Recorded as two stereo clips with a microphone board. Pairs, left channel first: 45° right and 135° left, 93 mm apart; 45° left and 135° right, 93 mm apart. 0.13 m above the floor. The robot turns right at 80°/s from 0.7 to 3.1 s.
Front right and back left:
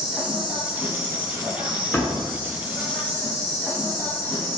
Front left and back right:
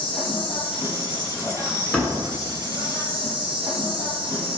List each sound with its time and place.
0.0 s an insect: 50° left, 1.0 m; by 4.6 s 115° right, 1.0 m
1.9 s a door slam: 35° right, 0.8 m; by 2.3 s 5° right, 0.8 m